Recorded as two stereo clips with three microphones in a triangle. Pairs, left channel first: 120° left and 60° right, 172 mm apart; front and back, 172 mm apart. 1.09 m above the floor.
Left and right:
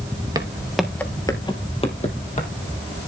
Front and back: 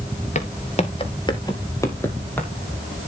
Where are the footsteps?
5° right, 1.4 m; by 2.5 s 80° left, 3 m.